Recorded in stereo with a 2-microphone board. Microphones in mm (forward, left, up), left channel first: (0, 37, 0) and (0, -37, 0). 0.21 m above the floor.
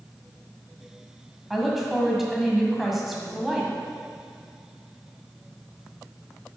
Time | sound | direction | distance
1.5 | a woman speaking | 5° right (ahead or behind) | 1.6 m